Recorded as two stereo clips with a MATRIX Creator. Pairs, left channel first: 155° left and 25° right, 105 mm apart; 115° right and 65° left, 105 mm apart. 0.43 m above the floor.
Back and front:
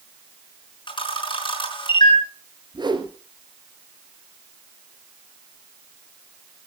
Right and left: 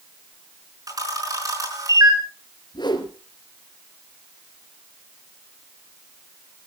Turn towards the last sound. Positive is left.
turn(degrees=-70)